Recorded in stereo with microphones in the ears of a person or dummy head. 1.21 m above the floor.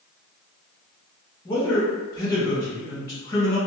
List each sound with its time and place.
1.4 s a man speaking: 15° left (ahead or behind), 1.4 m